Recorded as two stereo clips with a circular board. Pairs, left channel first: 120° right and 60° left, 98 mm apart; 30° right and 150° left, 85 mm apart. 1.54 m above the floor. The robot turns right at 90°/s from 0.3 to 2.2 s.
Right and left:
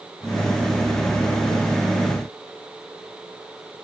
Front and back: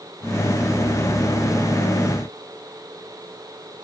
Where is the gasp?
I don't hear a gasp.